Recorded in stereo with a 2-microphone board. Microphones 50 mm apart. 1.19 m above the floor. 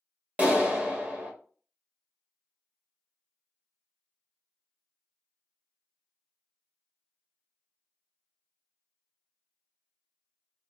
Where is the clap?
30° right (ahead or behind), 0.8 m.